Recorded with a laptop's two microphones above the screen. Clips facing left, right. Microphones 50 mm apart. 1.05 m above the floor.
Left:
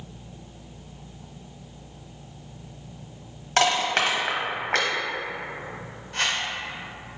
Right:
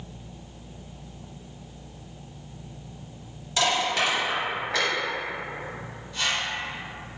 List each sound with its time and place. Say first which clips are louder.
3.6 s crushing: left 2 dB; 60° left (ahead or behind), 0.8 m
6.1 s a whoosh: left 1 dB; 60° left (ahead or behind), 0.7 m